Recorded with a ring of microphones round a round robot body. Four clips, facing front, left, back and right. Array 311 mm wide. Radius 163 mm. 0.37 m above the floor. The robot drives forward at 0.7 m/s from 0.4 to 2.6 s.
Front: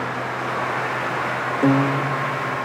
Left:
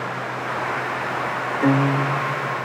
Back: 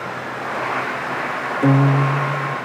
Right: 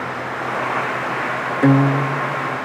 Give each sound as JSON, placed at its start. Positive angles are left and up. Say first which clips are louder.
{"t": 1.6, "sound": "a guitar", "louder": "right 4 dB, back 2 dB", "azimuth_deg": -95, "distance_m": 0.7}